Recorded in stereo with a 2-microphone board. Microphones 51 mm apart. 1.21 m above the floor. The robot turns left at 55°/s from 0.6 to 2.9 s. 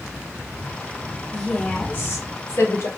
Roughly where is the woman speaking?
Behind.